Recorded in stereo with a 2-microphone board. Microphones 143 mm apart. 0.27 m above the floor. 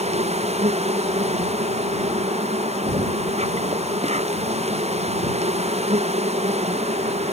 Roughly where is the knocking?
Right.